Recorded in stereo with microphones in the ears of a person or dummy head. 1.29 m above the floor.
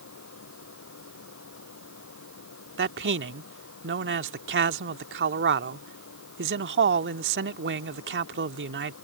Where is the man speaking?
50° right (ahead or behind).